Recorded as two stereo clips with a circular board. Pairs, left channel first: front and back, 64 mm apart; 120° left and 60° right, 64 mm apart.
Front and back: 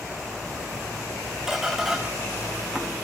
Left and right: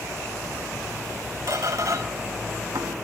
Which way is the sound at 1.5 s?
95° right.